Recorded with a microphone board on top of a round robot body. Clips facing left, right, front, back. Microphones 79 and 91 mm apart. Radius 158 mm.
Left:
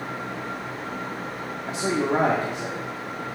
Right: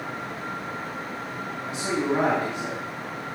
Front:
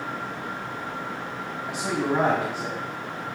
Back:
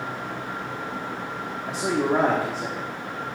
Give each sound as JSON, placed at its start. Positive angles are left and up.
{"t": 1.7, "sound": "a man speaking", "azimuth_deg": 135, "distance_m": 1.4}